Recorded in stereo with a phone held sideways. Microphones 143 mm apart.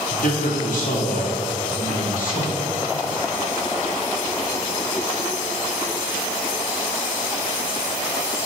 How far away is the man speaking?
About 2 m.